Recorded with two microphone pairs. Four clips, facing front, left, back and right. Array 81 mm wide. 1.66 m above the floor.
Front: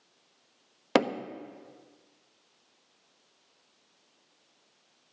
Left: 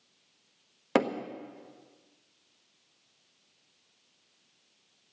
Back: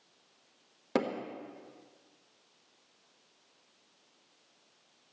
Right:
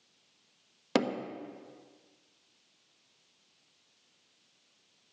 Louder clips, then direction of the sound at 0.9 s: Left 3 dB, front 6 dB; 20° left.